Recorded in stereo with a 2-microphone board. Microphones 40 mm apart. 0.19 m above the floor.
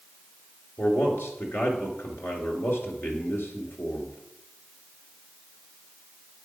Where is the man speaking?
65° left (ahead or behind), 2.5 m.